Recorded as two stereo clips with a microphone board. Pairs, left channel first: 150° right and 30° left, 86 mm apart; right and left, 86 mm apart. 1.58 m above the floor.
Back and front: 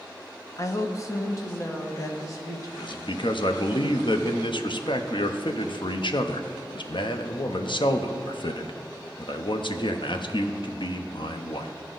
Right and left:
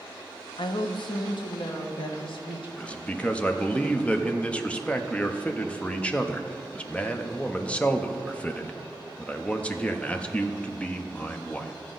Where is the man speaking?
165° right, 0.6 m.